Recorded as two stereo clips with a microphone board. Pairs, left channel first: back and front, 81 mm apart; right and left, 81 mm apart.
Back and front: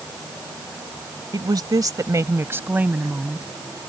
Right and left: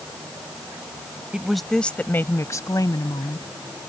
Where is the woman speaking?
10° left; by 3.5 s 80° right.